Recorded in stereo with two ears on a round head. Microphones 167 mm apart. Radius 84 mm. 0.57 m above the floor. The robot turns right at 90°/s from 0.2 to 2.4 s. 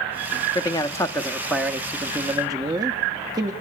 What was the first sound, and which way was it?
A man speaking, 20° left (ahead or behind).